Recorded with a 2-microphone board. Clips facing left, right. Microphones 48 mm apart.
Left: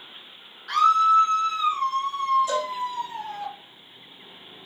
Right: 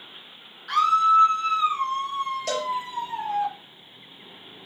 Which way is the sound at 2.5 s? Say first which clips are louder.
Left 1 dB; 75° right (ahead or behind).